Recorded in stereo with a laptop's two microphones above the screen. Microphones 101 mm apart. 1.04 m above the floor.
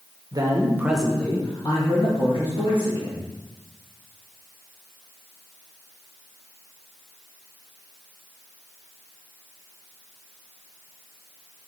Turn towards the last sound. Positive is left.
turn(degrees=60)  # may be behind; listen again after turning